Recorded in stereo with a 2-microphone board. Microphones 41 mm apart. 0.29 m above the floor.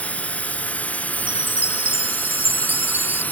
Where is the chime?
80° left.